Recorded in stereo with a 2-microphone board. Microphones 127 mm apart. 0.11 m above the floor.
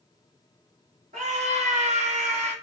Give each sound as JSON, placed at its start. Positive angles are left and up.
{"t": 1.1, "sound": "a scream", "side_deg": -80, "distance_m": 7.5}